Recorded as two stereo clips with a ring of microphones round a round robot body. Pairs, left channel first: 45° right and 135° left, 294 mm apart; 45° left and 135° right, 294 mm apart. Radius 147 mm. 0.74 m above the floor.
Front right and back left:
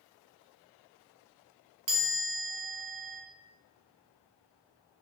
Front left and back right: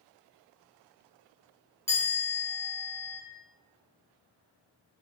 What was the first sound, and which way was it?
A chime, 125° left.